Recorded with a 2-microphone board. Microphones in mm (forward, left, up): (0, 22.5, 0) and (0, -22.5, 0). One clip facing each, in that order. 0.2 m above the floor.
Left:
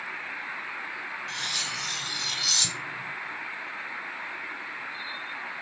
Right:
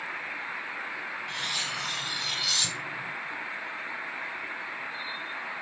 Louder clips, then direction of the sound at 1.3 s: Right 1 dB; 15° right (ahead or behind).